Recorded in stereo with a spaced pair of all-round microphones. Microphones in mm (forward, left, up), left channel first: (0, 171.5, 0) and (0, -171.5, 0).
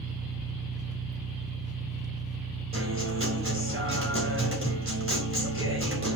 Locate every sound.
0.0 s an engine running: 10° right (ahead or behind), 1.5 m
2.7 s a guitar: 35° right (ahead or behind), 3.5 m